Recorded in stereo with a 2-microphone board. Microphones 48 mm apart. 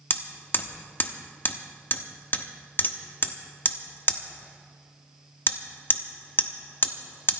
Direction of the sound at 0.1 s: 45° left (ahead or behind).